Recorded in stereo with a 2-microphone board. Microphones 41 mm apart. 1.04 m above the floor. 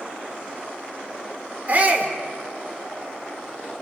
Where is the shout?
35° right (ahead or behind), 3.5 m.